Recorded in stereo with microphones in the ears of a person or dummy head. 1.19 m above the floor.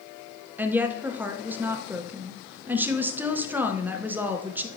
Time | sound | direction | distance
0.6 | a woman speaking | 10° right (ahead or behind) | 0.7 m